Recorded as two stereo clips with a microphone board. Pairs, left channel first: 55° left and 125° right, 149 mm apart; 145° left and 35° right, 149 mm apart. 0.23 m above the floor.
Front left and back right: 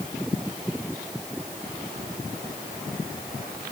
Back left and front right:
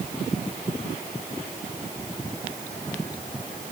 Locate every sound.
Only background noise.